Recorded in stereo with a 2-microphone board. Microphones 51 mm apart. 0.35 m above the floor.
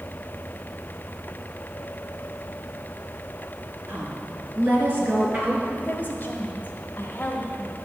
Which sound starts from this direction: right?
A woman speaking, at 3.9 s.